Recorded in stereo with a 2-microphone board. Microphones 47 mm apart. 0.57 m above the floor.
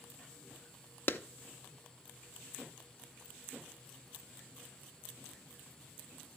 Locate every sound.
1.1 s a clap: 45° left (ahead or behind), 0.6 m